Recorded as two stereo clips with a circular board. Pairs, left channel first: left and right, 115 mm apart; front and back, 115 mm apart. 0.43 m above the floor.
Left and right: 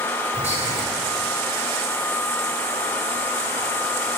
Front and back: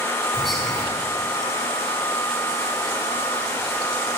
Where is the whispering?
90° right, 4.5 m.